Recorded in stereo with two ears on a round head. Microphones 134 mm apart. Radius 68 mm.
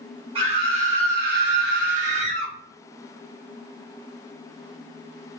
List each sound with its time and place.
0.3 s a scream: 35° right (ahead or behind), 0.9 m